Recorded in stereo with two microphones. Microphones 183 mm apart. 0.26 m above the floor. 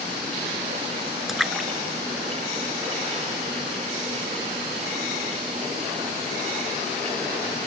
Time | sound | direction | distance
1.3 | a splash | centre (ahead or behind) | ?